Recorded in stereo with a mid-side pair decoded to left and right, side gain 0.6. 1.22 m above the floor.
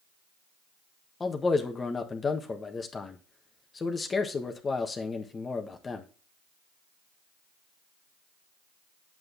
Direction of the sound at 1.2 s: 25° left.